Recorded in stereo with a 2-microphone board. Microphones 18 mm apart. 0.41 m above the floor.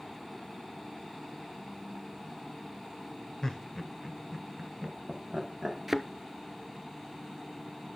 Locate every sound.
3.4 s laughter: 35° left (ahead or behind), 1.2 m; by 5.8 s 25° right (ahead or behind), 2.5 m
5.9 s a thud: 15° right (ahead or behind), 0.8 m